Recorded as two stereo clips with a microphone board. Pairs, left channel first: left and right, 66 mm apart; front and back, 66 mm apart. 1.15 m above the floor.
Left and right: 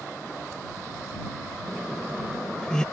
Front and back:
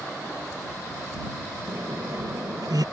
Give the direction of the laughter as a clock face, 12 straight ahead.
6 o'clock.